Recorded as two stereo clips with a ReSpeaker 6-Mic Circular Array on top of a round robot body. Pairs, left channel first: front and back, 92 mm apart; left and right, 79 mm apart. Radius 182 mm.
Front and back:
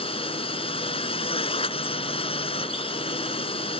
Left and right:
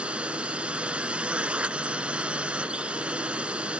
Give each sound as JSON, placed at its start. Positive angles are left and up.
{"t": 0.0, "sound": "a drone", "azimuth_deg": -15}